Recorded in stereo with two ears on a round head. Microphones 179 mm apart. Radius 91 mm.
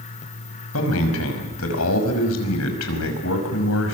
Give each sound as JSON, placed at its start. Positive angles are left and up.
{"t": 0.7, "sound": "a man speaking", "side_deg": 85, "distance_m": 5.5}